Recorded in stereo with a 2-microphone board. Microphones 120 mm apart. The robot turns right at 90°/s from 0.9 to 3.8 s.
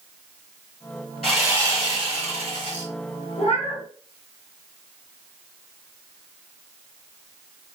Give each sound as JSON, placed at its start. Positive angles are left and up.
{"t": 1.2, "sound": "sawing", "azimuth_deg": 175, "distance_m": 1.5}
{"t": 3.4, "sound": "a cat meowing", "azimuth_deg": 85, "distance_m": 1.0}